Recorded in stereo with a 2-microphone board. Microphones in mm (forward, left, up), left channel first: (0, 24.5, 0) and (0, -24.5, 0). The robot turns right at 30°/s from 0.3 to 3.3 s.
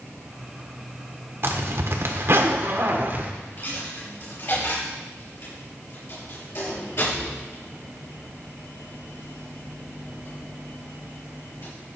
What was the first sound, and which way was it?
A zipper, 110° right.